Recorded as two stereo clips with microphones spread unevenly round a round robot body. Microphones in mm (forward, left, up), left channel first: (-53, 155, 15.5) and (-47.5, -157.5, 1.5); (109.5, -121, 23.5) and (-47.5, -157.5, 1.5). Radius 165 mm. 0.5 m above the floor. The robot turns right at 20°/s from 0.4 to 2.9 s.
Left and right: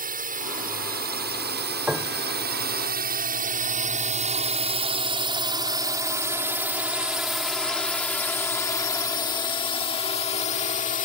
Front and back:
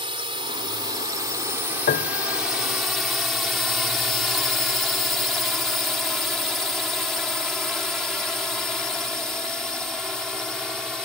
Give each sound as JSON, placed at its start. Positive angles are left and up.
{"t": 0.0, "sound": "a drone", "azimuth_deg": -135}
{"t": 1.9, "sound": "a piano", "azimuth_deg": -5}